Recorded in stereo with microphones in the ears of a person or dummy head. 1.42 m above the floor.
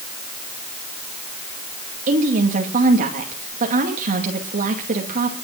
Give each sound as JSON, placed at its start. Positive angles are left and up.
{"t": 2.1, "sound": "a woman speaking", "side_deg": -40, "distance_m": 2.5}